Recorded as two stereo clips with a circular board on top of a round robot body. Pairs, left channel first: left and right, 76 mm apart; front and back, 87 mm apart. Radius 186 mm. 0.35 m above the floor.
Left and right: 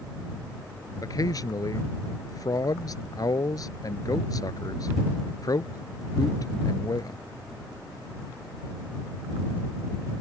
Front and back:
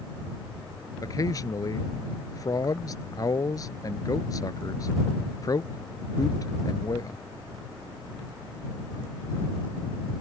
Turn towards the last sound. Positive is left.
turn(degrees=50)